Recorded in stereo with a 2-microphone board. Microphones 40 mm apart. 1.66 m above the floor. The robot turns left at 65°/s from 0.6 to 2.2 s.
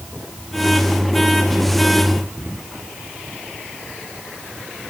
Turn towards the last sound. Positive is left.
No sound to turn to.